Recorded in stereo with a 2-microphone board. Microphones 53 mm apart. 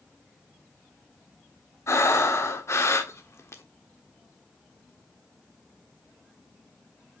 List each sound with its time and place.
1.9 s breathing: 60° left (ahead or behind), 1.2 m